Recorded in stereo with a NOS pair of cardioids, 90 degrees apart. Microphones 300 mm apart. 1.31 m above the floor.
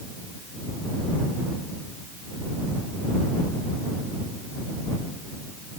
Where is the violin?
No violin in this recording.